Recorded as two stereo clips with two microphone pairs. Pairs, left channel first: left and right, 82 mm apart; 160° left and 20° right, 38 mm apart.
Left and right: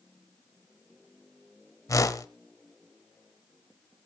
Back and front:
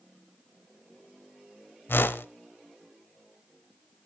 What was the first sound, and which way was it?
A whoosh, 140° left.